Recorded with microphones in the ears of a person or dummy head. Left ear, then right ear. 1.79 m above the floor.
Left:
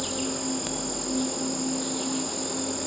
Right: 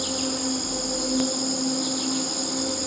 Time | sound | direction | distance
0.0 | an insect | 20° left (ahead or behind) | 3 m